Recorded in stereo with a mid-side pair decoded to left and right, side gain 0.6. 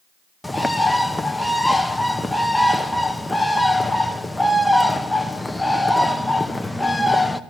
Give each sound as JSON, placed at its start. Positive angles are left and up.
{"t": 0.4, "sound": "a bird", "azimuth_deg": 5, "distance_m": 0.8}